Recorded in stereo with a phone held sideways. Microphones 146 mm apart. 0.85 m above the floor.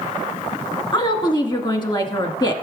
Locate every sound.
0.9 s a woman speaking: 30° left (ahead or behind), 1.1 m